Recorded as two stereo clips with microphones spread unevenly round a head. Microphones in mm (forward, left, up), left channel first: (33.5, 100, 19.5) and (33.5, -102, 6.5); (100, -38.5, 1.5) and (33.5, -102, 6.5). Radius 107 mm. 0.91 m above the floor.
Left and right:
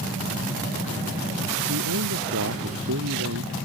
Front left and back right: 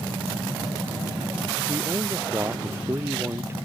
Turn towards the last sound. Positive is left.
turn(degrees=-70)